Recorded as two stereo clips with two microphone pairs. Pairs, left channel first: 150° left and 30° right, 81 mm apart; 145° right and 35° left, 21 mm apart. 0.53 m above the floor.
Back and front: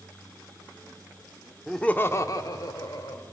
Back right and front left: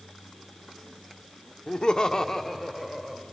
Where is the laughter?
125° right, 0.9 m; by 3.2 s 125° left, 1.7 m.